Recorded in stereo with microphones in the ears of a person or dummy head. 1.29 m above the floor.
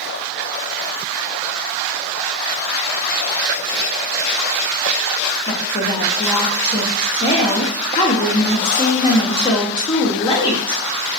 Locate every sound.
5.5 s a woman speaking: 30° left (ahead or behind), 0.5 m